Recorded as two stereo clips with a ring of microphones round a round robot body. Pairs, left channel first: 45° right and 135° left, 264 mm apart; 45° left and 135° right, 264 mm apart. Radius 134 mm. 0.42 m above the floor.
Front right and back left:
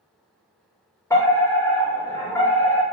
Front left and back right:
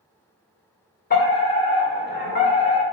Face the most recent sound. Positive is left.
turn(degrees=30)